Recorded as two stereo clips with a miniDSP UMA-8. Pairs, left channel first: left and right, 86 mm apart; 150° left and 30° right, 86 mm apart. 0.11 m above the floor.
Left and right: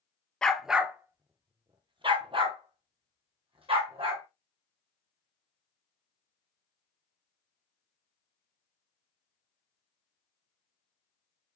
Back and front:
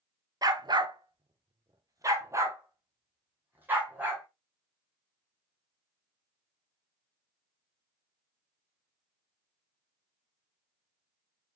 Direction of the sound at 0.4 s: 10° left.